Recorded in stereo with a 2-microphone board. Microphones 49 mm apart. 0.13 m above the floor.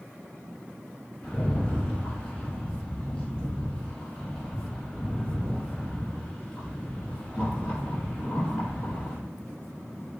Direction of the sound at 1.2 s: 15° left (ahead or behind).